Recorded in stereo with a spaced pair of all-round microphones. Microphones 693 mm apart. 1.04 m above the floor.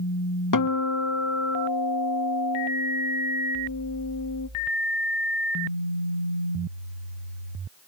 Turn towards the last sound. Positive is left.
turn(degrees=30)  # may be behind; listen again after turning